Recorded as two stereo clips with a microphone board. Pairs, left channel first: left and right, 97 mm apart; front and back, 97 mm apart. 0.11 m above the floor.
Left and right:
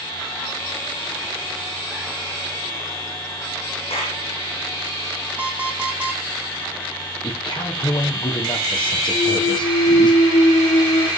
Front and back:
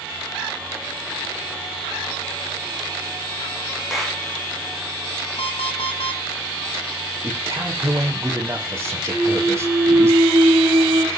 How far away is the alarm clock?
About 3 m.